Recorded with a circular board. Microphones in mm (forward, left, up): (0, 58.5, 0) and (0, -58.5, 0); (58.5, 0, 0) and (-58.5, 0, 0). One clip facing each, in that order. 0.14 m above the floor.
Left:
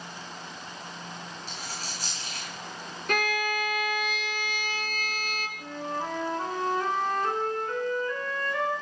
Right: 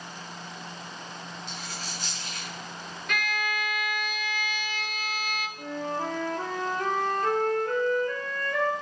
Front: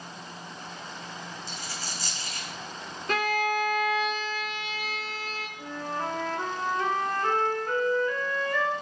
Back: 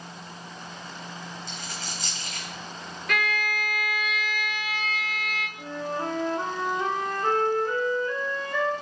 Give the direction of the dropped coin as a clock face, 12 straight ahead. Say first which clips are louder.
Even, back 1 dB; 7 o'clock.